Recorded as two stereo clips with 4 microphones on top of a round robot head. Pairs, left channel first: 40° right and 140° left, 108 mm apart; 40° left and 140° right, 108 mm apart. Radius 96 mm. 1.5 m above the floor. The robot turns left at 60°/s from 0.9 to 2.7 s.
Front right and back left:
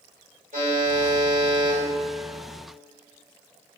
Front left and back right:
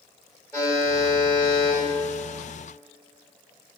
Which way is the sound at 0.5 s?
140° left.